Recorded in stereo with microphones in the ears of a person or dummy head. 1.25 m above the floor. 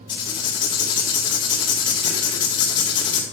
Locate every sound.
0.1 s writing: 25° left (ahead or behind), 2 m